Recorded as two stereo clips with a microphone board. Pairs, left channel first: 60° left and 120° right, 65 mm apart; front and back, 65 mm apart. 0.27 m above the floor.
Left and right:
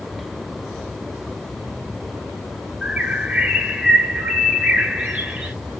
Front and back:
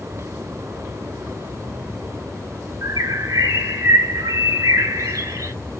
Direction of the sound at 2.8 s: 165° left.